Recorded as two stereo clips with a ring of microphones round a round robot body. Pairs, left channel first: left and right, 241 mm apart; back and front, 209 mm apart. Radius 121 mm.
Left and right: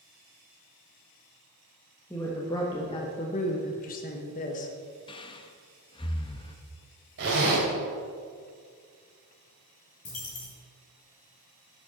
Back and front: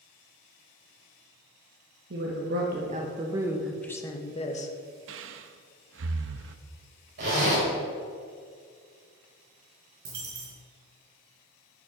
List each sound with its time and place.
2.1 s a woman speaking: 10° left, 1.3 m; by 4.7 s 140° left, 1.1 m
5.1 s breathing: 20° left, 0.5 m
7.2 s a zipper: 45° right, 4 m
10.1 s a dropped coin: 30° left, 3.5 m